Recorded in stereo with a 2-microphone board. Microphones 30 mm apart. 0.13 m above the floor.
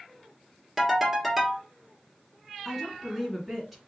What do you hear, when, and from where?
0.8 s a ringtone: centre (ahead or behind), 1.6 m
2.6 s a woman speaking: centre (ahead or behind), 1.8 m